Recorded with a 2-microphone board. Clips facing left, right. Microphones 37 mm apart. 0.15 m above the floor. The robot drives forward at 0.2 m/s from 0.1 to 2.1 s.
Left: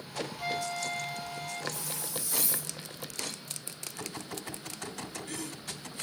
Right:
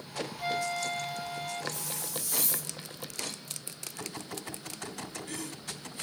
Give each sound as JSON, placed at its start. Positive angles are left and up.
{"t": 0.4, "sound": "a flute", "side_deg": -5, "distance_m": 2.5}
{"t": 1.7, "sound": "a hiss", "side_deg": -55, "distance_m": 1.7}